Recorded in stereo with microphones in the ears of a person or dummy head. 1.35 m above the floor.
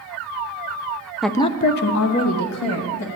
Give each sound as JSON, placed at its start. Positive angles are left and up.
{"t": 1.2, "sound": "a woman speaking", "side_deg": -5, "distance_m": 0.6}